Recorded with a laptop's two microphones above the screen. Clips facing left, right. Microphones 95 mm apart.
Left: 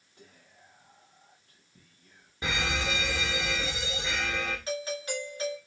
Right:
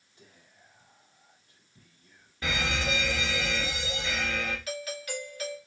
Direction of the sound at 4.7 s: 30° left (ahead or behind).